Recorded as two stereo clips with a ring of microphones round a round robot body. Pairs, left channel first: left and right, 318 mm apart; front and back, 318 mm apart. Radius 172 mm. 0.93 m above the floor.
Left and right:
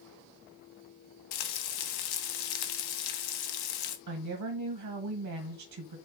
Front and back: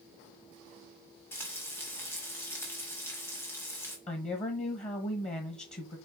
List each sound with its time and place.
1.3 s frying: 85° left, 1.1 m
4.1 s a woman speaking: 70° right, 1.2 m